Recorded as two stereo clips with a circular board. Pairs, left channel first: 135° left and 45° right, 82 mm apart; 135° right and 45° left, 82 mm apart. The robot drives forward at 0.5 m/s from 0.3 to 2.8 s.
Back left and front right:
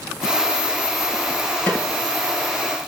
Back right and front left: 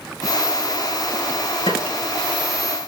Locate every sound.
1.7 s a snare drum: 155° right, 6 m